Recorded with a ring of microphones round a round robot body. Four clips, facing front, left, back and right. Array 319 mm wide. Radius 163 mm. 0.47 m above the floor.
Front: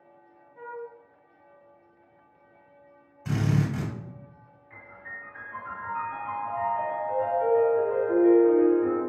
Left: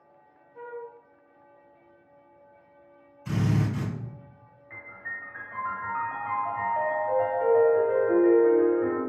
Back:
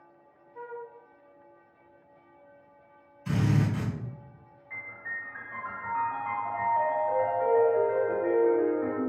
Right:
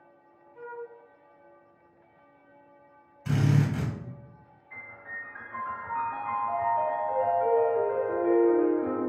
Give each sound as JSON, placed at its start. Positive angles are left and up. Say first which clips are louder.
{"t": 0.6, "sound": "a flute", "louder": "left 1 dB, front 2 dB", "azimuth_deg": 165, "distance_m": 0.7}
{"t": 3.2, "sound": "a drill", "louder": "right 1 dB, even", "azimuth_deg": -25, "distance_m": 1.4}
{"t": 4.7, "sound": "a piano", "louder": "left 3 dB, back 4 dB", "azimuth_deg": 105, "distance_m": 1.2}